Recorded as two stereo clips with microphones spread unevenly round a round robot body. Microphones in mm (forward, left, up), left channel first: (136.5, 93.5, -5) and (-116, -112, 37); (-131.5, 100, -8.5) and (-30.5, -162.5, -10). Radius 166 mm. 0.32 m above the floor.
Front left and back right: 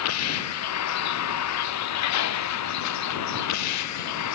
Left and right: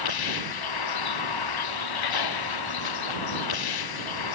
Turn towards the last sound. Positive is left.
turn(degrees=80)